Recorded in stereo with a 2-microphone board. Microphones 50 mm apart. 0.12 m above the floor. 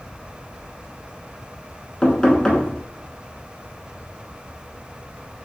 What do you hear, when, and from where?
2.0 s knocking: 15° left (ahead or behind), 0.8 m